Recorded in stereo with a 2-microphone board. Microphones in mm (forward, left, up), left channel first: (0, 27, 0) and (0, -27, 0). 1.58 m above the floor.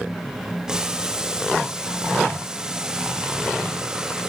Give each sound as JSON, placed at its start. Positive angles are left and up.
{"t": 0.7, "sound": "boiling", "side_deg": -15, "distance_m": 1.5}